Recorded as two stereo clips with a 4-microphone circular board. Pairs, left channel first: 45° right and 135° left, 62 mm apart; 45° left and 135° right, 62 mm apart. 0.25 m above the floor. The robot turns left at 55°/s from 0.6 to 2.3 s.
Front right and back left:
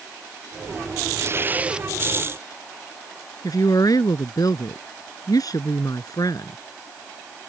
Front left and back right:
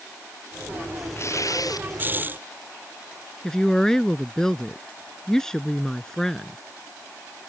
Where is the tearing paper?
90° left; by 1.9 s 55° left.